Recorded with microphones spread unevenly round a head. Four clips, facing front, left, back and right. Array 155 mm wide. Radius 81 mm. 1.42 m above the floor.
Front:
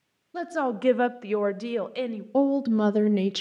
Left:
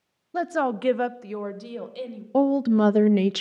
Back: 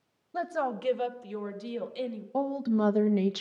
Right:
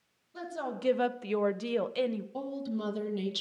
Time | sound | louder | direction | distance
0.3 | a woman speaking | left 12 dB, front 3 dB | 75° left | 0.6 m
2.3 | a woman speaking | left 16 dB, front 6 dB | 50° left | 0.7 m